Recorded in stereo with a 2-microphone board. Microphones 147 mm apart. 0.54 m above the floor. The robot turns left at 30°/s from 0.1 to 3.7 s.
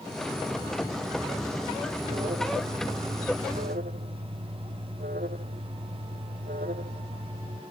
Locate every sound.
2.0 s an alarm: 45° right; by 7.6 s 95° right